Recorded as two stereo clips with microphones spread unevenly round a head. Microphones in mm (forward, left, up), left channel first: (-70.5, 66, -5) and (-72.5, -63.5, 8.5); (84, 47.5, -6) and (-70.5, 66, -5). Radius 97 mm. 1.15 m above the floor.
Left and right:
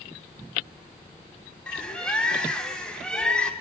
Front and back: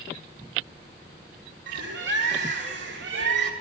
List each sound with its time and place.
1.7 s a bird: 170° left, 3 m